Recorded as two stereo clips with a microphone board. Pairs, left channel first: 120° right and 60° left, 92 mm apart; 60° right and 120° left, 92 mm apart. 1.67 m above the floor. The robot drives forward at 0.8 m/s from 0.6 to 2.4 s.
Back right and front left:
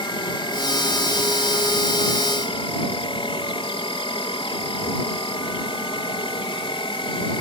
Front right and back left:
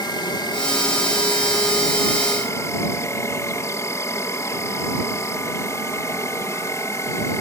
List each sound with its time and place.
0.0 s an insect: 95° right; by 7.4 s 115° right